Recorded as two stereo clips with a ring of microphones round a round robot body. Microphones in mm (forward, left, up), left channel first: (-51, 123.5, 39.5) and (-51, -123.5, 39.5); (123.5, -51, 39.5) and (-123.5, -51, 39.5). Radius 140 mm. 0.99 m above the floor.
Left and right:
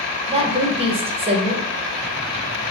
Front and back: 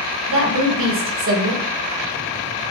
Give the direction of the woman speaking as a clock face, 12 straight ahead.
5 o'clock.